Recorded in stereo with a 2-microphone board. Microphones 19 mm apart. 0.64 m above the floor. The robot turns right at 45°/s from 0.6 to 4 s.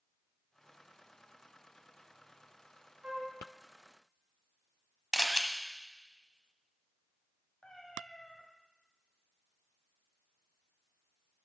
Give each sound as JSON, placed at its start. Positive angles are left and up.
{"t": 3.0, "sound": "a flute", "side_deg": -75, "distance_m": 1.3}
{"t": 5.1, "sound": "a camera shutter", "side_deg": -20, "distance_m": 0.7}
{"t": 7.6, "sound": "a cat meowing", "side_deg": 70, "distance_m": 1.3}